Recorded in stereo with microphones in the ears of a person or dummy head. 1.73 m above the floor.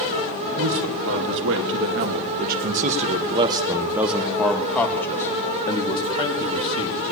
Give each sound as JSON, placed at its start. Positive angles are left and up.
{"t": 0.6, "sound": "a man speaking", "side_deg": -75, "distance_m": 1.9}